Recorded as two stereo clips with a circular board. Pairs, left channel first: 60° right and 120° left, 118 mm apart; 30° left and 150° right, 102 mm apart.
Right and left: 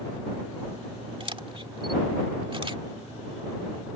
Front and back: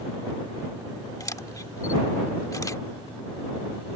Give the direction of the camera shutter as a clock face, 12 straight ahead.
9 o'clock.